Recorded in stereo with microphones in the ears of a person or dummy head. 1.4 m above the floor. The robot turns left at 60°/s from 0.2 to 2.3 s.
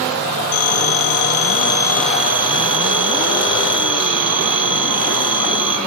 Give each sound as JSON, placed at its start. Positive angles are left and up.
{"t": 0.5, "sound": "a phone ringing", "azimuth_deg": 100, "distance_m": 2.0}